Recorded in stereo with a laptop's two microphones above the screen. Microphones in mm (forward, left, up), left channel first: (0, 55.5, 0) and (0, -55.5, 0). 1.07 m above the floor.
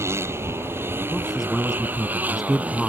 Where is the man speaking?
Centre (ahead or behind).